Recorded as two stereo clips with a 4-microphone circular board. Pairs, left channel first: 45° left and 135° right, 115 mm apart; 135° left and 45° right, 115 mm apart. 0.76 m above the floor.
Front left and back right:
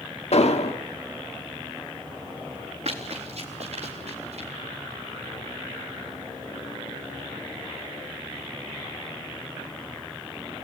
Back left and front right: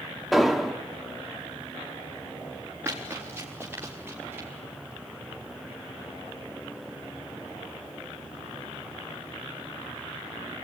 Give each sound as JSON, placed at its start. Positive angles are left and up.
{"t": 0.3, "sound": "an explosion", "azimuth_deg": 45, "distance_m": 1.4}
{"t": 2.9, "sound": "running footsteps", "azimuth_deg": -115, "distance_m": 5.0}